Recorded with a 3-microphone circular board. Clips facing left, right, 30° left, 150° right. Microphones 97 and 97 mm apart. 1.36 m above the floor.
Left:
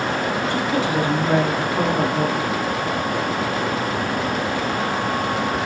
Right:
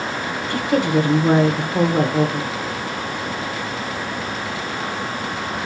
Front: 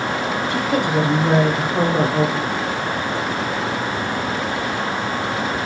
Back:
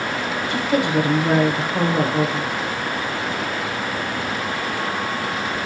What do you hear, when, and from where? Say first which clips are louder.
0.5 s a woman speaking: right 6 dB, back 1 dB; 60° right, 1.2 m